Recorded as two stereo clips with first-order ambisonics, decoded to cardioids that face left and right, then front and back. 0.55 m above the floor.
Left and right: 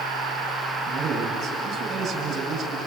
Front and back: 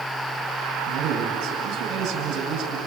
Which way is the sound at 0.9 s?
145° right.